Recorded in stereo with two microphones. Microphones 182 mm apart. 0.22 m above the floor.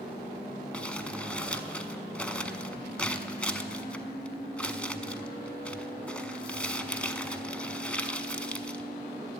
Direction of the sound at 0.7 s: 5° left (ahead or behind).